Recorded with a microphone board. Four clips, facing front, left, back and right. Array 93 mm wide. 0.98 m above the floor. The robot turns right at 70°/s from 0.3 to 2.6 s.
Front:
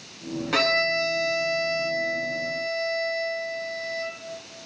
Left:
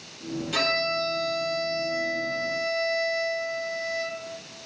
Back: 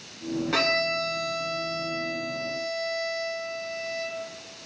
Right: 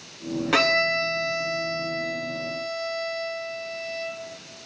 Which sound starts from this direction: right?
A violin, at 0.5 s.